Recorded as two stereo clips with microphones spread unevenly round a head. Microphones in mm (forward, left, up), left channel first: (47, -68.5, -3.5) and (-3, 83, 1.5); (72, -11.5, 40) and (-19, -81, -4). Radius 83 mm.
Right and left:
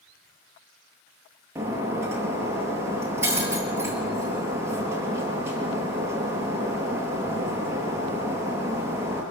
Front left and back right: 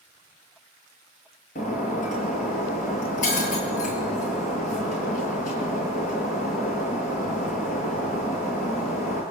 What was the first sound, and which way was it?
Breaking glass, 35° left.